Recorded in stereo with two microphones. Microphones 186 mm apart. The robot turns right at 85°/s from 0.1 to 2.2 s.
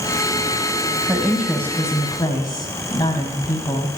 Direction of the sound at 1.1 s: 10° right (ahead or behind).